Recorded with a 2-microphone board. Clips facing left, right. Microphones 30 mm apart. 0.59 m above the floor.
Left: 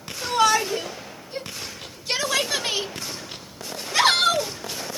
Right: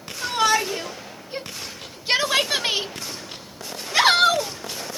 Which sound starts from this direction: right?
A shout, at 0.2 s.